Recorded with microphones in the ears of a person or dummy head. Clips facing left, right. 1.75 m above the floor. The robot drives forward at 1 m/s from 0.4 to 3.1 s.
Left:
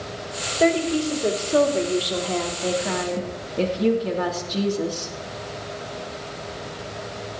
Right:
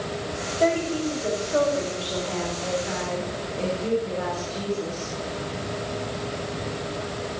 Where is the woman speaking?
35° left (ahead or behind), 3.5 m; by 5.1 s 75° left (ahead or behind), 2 m.